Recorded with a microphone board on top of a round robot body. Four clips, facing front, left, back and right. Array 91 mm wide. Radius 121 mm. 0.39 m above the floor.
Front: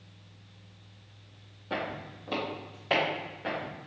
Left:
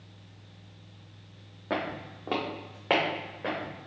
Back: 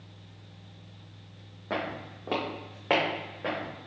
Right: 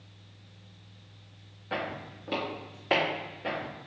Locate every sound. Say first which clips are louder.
1.7 s footsteps: left 2 dB, back 1 dB; 115° left, 1.4 m; by 3.7 s 140° left, 3 m